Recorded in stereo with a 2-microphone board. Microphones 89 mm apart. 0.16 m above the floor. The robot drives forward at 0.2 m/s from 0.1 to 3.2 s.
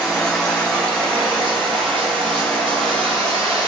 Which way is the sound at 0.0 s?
5° left (ahead or behind).